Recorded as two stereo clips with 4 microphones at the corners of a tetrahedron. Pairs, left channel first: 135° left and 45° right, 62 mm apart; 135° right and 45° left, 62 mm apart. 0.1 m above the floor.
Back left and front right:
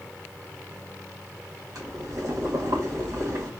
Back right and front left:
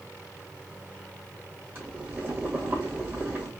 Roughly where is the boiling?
Ahead.